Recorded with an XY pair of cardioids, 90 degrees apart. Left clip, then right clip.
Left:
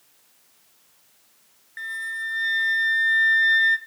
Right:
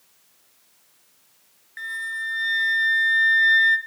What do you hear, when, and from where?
1.8 s a flute: 5° right, 0.7 m